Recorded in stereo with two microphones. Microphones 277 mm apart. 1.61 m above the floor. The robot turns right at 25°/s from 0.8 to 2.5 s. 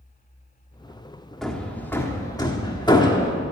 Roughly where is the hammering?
Centre.